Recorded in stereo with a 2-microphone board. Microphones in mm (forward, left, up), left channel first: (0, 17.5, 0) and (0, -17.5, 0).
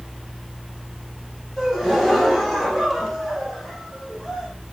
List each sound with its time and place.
1.6 s a gasp: centre (ahead or behind), 8 m